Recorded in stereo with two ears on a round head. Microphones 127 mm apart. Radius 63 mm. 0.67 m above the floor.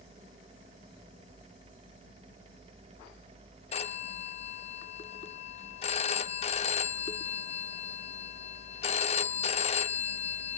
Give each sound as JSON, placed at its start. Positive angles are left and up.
{"t": 3.7, "sound": "a phone ringing", "side_deg": 40, "distance_m": 0.8}